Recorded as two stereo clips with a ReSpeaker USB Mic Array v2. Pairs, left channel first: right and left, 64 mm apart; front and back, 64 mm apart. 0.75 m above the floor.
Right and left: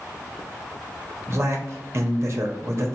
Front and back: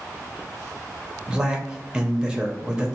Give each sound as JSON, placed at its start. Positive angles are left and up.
{"t": 1.3, "sound": "a man speaking", "azimuth_deg": 105, "distance_m": 0.7}